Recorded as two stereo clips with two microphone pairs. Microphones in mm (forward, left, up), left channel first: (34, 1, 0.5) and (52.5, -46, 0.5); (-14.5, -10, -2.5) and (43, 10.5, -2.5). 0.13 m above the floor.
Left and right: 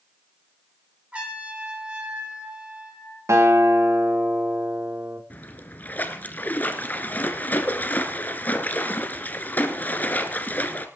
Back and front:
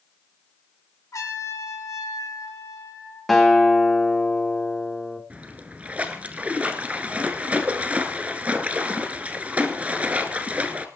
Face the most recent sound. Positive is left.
turn(degrees=80)